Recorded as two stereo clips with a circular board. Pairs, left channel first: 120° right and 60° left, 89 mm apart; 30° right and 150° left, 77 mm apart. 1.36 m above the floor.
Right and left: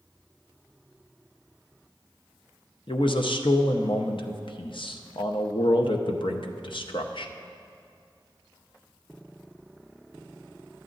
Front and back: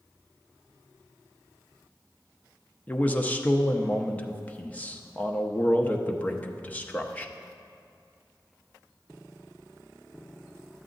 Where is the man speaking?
100° right, 0.7 m.